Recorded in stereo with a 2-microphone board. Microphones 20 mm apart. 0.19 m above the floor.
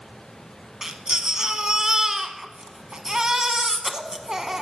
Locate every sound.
0.8 s a baby crying: 40° right (ahead or behind), 0.8 m